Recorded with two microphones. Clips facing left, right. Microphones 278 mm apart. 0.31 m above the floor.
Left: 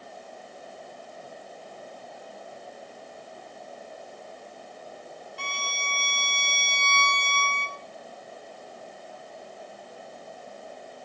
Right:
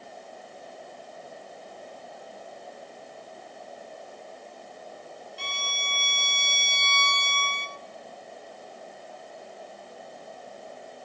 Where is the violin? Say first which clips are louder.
Left 1 dB; 60° left (ahead or behind), 0.7 m.